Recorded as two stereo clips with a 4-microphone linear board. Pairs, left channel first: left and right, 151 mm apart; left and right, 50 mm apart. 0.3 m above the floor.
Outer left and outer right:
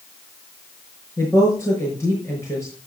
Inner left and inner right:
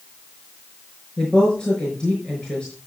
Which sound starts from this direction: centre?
A woman speaking, at 1.2 s.